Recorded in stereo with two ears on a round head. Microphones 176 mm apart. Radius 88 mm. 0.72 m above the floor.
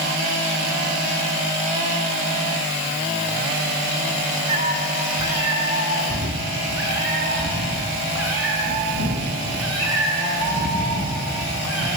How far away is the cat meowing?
About 4.5 m.